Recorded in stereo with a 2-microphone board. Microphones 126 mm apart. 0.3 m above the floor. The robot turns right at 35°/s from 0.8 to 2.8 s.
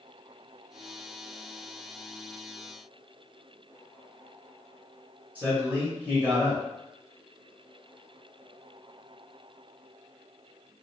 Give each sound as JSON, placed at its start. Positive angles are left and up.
{"t": 5.3, "sound": "a man speaking", "side_deg": -15, "distance_m": 0.9}